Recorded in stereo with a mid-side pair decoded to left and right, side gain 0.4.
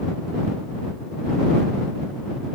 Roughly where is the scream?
I don't hear a scream.